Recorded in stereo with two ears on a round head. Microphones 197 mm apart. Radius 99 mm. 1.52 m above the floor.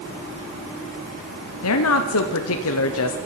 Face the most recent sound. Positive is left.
turn(degrees=75)  # may be behind; listen again after turning